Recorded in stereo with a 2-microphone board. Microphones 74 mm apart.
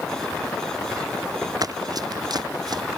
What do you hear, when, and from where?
1.6 s running footsteps: 60° right (ahead or behind); by 2.8 s 65° right (ahead or behind)